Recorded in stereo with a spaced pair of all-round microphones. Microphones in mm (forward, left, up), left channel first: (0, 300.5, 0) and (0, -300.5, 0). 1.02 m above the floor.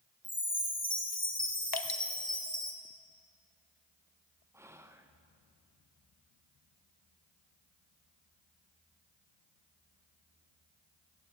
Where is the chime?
15° left (ahead or behind), 1.3 m.